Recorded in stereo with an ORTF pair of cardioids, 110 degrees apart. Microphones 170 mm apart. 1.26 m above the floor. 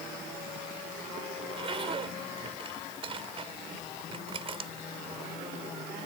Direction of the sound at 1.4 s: 30° right.